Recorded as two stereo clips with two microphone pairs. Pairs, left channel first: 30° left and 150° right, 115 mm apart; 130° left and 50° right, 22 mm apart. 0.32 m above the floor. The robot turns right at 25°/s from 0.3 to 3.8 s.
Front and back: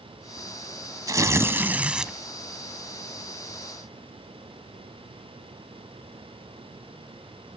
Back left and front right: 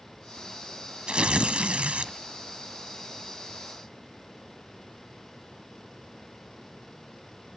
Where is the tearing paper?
90° right, 1.0 m; by 2.1 s 60° right, 1.0 m.